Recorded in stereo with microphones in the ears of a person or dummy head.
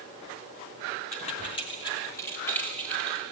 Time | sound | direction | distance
1.1 | keys jangling | 40° left (ahead or behind) | 3 m